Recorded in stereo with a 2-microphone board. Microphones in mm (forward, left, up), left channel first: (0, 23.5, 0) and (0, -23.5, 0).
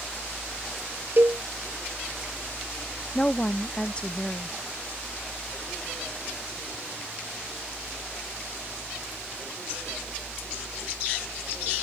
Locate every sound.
1.2 s a cowbell: 55° right (ahead or behind)
3.1 s a woman speaking: 20° left (ahead or behind)